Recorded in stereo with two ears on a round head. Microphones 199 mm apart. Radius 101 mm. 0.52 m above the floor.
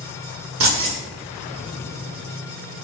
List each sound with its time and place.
0.6 s keys jangling: 65° right (ahead or behind), 0.9 m